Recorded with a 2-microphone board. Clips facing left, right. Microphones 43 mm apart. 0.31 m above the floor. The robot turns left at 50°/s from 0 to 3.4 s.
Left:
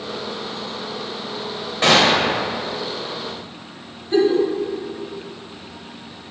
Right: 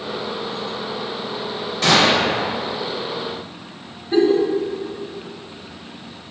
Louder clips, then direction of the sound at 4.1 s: Right 1 dB; 10° right (ahead or behind).